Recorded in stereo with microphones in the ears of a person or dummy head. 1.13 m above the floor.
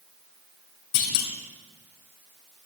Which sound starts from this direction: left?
A clunk, at 0.9 s.